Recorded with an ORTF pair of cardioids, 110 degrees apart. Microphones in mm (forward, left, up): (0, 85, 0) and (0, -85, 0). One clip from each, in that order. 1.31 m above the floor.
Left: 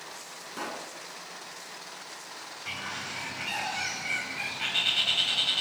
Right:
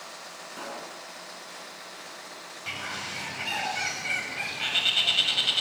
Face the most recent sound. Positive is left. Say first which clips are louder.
# right 2 dB
turn(degrees=-15)